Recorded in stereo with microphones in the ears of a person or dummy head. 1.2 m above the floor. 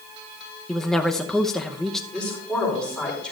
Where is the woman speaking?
5° left (ahead or behind), 0.7 m.